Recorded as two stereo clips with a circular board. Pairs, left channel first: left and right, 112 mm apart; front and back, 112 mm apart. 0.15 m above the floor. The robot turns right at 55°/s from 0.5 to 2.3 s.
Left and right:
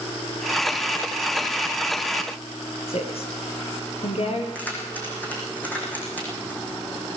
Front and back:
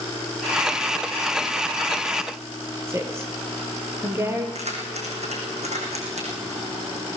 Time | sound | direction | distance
2.9 | a woman speaking | 115° left | 4 m
4.5 | keys jangling | 165° left | 6.5 m